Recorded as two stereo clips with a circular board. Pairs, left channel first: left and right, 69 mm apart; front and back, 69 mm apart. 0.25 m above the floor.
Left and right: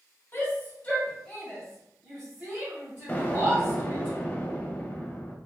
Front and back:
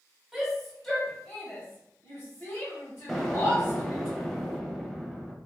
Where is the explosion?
75° left, 0.6 m.